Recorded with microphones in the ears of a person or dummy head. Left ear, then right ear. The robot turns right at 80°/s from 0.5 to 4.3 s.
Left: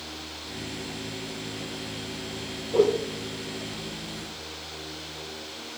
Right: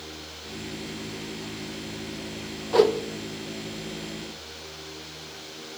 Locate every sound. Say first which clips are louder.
2.7 s a whoosh: right 2 dB; 20° right (ahead or behind), 0.7 m